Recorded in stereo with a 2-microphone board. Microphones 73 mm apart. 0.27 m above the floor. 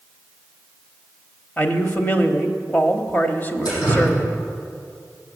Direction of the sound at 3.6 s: 75° left (ahead or behind).